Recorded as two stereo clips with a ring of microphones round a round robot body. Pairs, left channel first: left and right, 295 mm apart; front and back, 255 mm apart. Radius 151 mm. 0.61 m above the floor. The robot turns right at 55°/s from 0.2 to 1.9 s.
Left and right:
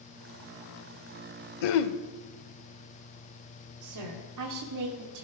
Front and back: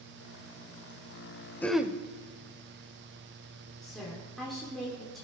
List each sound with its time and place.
1.6 s throat clearing: 85° left, 0.6 m; by 2.0 s 100° left, 0.6 m
3.8 s a woman speaking: 90° right, 1.6 m